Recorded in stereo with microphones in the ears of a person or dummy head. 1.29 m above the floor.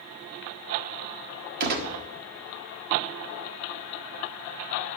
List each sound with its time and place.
1.6 s a gunshot: 55° right (ahead or behind), 1.4 m